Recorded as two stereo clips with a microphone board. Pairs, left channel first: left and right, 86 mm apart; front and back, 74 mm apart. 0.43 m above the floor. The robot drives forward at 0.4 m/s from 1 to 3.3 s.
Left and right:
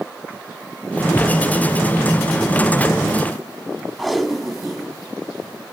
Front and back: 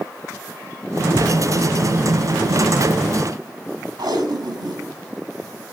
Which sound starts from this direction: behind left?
A thud, at 1.1 s.